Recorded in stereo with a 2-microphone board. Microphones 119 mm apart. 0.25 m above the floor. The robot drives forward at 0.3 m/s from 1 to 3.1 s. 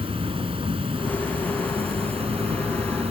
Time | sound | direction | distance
0.0 | an insect | 55° right (ahead or behind) | ?